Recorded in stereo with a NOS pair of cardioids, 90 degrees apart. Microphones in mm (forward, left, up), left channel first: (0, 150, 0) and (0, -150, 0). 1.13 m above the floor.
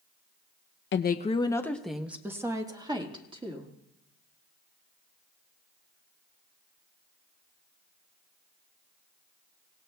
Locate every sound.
0.9 s a woman speaking: 40° left, 0.5 m; by 3.7 s 20° right, 2 m